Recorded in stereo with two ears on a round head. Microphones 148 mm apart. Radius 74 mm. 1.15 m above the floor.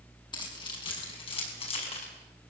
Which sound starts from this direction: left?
Keys jangling, at 0.3 s.